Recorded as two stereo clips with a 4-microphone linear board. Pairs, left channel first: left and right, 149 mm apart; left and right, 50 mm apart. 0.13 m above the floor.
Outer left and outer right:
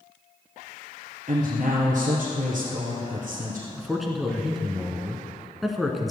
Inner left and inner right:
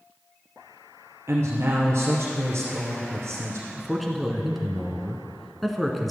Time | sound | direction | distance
1.3 | a woman speaking | 60° right (ahead or behind) | 2.5 m
3.8 | a man speaking | centre (ahead or behind) | 1.3 m